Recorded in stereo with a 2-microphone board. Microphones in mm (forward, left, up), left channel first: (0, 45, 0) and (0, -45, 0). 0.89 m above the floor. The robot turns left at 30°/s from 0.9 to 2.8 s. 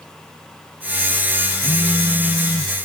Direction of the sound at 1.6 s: 65° left.